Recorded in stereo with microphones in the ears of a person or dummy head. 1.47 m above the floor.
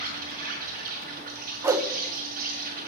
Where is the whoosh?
20° right (ahead or behind), 0.7 m.